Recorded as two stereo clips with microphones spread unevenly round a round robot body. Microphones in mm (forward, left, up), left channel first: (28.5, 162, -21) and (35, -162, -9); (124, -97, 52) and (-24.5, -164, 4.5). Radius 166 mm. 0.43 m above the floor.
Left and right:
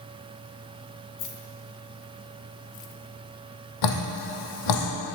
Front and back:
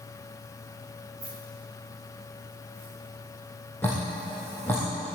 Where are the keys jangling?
110° left, 2.5 m; by 2.9 s 90° left, 1.6 m.